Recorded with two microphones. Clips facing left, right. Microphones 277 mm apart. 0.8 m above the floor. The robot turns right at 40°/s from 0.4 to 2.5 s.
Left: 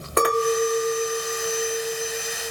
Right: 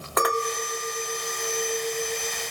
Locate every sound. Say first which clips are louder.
0.2 s a clink: left 7 dB; 35° left, 1.1 m; by 2.5 s 120° left, 1.1 m